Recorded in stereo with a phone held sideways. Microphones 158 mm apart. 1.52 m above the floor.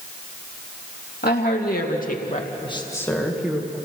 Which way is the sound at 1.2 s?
80° left.